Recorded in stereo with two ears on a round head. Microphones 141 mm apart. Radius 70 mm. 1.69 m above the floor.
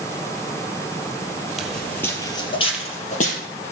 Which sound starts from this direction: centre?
Footsteps, at 1.6 s.